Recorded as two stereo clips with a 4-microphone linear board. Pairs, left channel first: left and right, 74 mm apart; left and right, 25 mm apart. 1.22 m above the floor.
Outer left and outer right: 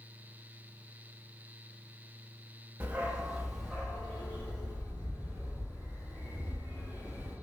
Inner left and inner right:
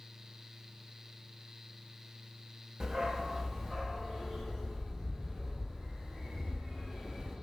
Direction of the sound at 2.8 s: 20° right (ahead or behind).